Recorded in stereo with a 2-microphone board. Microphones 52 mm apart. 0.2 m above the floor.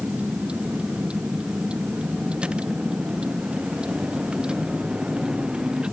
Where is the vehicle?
25° right (ahead or behind); by 5.9 s 20° right (ahead or behind).